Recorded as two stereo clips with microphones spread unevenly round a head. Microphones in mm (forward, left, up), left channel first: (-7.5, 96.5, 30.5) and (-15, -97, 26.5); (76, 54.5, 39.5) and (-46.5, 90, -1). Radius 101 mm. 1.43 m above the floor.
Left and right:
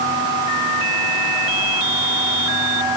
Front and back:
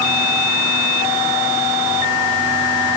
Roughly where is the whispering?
No whispering in this recording.